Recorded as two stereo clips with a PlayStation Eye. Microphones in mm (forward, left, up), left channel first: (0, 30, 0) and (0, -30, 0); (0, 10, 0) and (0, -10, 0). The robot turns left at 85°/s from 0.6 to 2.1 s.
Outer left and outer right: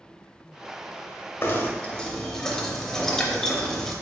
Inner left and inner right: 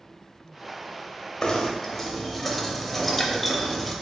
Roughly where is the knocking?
Left.